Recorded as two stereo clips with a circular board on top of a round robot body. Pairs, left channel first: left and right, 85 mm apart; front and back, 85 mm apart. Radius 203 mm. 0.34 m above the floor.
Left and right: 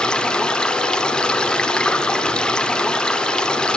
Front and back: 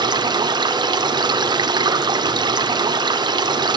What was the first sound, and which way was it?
Running water, 170° left.